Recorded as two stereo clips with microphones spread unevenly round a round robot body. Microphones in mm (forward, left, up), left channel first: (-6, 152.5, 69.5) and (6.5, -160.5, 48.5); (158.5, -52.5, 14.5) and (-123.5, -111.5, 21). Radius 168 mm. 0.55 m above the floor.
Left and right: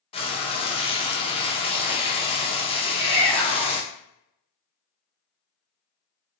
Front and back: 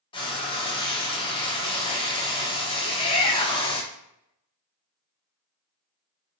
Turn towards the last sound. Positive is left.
turn(degrees=-55)